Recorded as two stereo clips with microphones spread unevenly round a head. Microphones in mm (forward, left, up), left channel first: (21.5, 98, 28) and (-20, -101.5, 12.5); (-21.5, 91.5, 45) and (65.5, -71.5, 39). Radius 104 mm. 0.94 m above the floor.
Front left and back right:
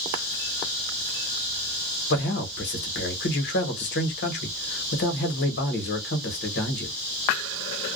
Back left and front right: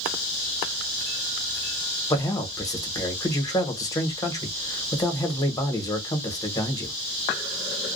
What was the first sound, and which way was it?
A man speaking, 50° left.